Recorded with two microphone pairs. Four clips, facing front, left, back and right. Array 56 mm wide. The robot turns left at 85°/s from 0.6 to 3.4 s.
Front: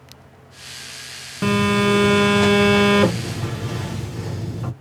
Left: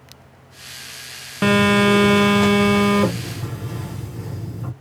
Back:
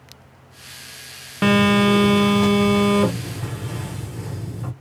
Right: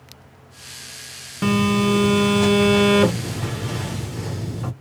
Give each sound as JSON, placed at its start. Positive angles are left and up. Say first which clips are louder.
{"t": 1.4, "sound": "a phone buzzing", "louder": "left 4 dB, back 2 dB", "azimuth_deg": 120, "distance_m": 0.6}